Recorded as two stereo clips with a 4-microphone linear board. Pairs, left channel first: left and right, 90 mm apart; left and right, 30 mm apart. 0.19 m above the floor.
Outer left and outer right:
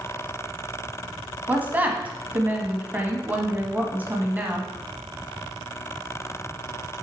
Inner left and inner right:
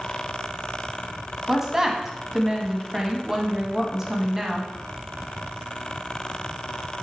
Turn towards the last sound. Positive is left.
turn(degrees=-15)  # may be behind; listen again after turning